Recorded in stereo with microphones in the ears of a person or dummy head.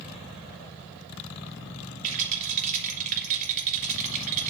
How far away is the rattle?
About 3.5 m.